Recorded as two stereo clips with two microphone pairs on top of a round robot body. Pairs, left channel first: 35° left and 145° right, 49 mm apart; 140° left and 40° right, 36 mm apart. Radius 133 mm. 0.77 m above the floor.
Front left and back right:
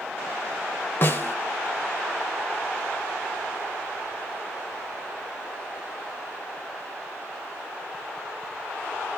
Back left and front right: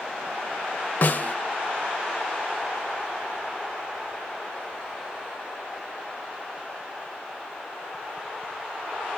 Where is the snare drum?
80° left, 0.6 m.